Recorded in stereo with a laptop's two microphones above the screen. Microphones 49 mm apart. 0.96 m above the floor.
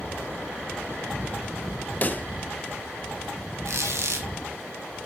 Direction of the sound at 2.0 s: 35° left (ahead or behind).